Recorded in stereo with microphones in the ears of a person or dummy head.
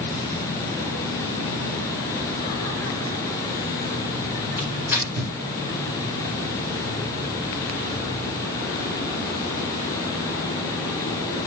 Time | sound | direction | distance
4.6 | tearing paper | 15° right (ahead or behind) | 4.5 m